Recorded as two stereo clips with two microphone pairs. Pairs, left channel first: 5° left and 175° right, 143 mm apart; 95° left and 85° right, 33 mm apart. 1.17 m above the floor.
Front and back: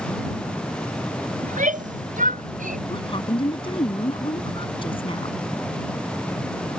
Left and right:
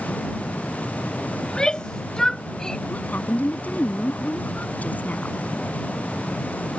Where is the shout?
160° left; by 2.8 s 165° left.